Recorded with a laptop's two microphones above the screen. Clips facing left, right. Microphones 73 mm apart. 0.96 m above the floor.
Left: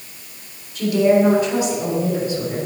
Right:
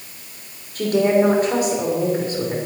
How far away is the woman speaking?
About 3 m.